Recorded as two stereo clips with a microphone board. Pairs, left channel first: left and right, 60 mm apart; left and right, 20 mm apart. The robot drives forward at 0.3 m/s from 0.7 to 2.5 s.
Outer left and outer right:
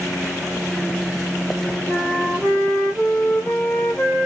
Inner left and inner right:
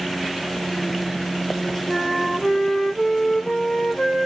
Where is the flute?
Centre (ahead or behind), 1.9 m.